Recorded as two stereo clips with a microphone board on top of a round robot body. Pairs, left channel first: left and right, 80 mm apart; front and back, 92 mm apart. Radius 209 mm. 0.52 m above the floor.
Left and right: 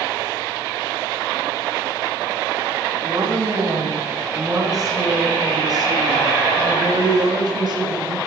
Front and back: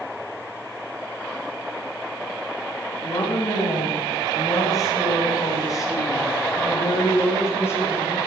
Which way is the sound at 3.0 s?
45° right.